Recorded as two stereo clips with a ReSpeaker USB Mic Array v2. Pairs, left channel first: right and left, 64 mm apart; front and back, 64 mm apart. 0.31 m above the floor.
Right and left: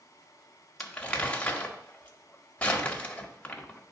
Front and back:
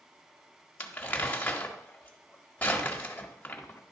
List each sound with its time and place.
0.8 s crumpling: 35° right, 1.2 m